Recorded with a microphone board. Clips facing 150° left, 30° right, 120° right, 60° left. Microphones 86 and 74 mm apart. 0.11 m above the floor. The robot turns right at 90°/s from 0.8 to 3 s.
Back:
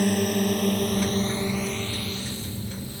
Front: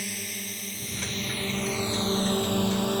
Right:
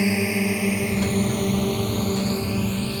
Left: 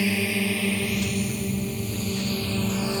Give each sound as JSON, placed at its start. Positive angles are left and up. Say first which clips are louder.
{"t": 0.0, "sound": "a drone", "louder": "back 16 dB, right 3 dB", "azimuth_deg": 175}